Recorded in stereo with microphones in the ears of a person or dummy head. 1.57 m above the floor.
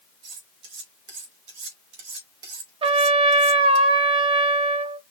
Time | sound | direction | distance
0.2 | cutlery clinking | 65° right (ahead or behind) | 2.5 m
2.8 | a trumpet | 30° right (ahead or behind) | 0.6 m